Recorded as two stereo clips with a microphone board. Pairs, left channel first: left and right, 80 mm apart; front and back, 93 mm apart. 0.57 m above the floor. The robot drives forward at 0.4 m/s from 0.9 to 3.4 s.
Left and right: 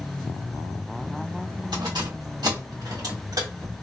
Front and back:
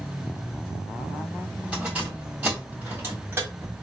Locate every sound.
1.7 s keys jangling: 105° right, 2.5 m; by 3.7 s 120° right, 2.5 m